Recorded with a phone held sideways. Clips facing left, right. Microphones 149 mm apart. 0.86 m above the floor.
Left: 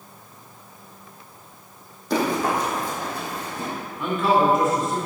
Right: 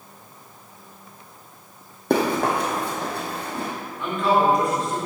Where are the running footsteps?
60° right (ahead or behind), 1.9 m.